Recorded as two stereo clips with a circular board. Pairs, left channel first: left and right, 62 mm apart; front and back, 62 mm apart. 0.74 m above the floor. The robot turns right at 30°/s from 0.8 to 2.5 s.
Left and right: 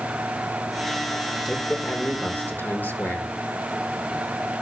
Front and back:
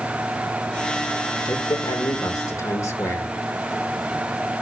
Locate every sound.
1.4 s a man speaking: straight ahead, 1.8 m; by 3.3 s 35° left, 1.8 m